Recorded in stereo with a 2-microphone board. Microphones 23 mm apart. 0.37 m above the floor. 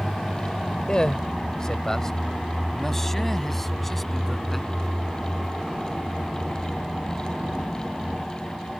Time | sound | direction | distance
0.9 | a man speaking | 35° left (ahead or behind) | ?